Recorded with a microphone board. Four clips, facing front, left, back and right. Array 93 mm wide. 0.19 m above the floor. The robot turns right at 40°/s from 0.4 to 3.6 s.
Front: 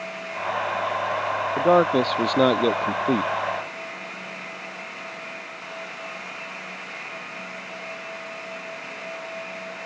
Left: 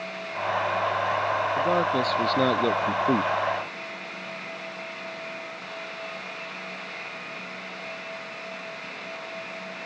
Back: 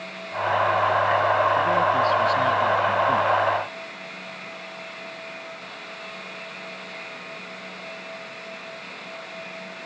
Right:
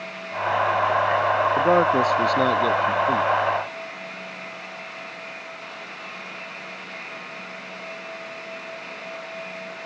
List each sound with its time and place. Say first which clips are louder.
1.6 s a man speaking: right 6 dB, front 2 dB; 40° right; by 3.3 s 30° left